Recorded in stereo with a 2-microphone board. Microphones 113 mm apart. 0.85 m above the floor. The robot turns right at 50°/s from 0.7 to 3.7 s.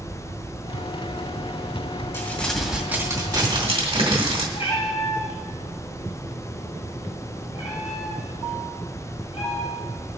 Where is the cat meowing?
60° left (ahead or behind), 5 m.